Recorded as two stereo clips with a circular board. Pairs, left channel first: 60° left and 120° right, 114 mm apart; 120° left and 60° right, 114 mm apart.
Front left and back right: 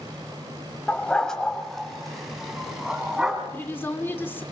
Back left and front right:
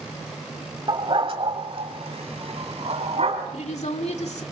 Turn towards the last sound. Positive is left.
turn(degrees=130)